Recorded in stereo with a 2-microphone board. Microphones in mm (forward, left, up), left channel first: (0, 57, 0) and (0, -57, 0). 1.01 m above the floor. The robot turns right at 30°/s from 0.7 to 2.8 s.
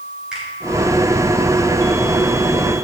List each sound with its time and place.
0.3 s a finger snap: 5° right (ahead or behind), 3 m